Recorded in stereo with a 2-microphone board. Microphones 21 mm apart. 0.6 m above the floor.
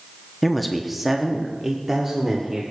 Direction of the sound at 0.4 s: 5° left (ahead or behind).